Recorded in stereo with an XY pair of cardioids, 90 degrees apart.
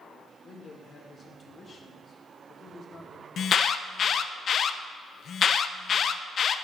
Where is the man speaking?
55° left, 2 m.